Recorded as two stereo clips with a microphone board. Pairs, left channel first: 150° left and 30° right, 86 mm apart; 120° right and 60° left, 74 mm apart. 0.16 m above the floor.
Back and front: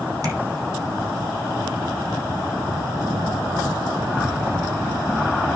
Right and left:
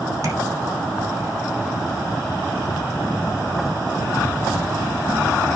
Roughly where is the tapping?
Ahead.